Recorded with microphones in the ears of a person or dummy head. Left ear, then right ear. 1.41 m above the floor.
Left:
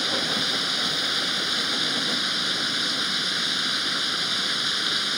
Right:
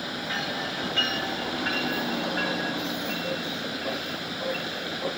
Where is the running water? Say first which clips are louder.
Left 6 dB; 50° left (ahead or behind).